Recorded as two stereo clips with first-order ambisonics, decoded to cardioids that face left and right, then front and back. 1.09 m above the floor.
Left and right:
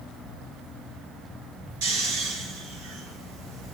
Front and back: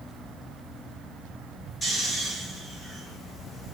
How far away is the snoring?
About 6 m.